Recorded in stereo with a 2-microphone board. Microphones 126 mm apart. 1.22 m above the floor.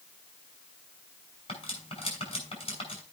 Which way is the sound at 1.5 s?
50° left (ahead or behind).